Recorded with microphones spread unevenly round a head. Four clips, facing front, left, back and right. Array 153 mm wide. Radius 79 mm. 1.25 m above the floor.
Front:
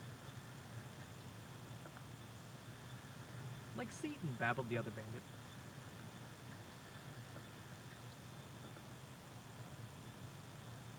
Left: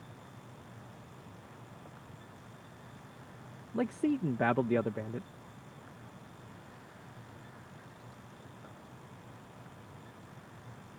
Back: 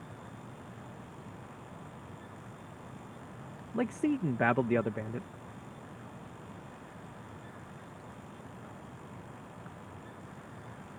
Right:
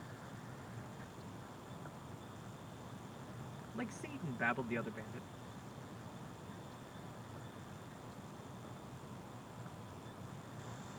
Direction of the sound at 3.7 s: 135° left.